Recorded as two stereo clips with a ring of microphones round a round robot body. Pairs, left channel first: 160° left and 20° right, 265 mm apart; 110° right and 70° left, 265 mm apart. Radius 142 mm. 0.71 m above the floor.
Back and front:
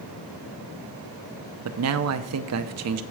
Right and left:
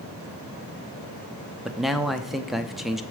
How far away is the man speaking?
About 0.8 m.